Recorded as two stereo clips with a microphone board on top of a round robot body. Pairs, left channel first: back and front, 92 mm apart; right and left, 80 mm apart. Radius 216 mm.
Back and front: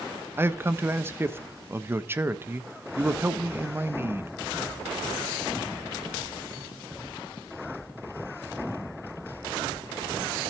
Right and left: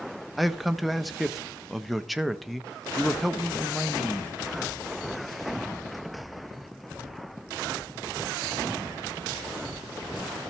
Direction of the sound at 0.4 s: Straight ahead.